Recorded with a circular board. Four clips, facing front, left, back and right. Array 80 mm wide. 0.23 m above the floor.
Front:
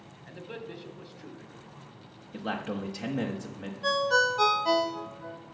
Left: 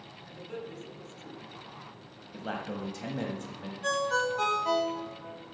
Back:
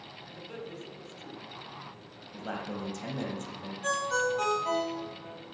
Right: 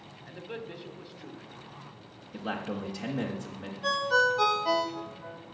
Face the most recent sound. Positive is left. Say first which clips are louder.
# right 3 dB, front 4 dB
turn(degrees=-20)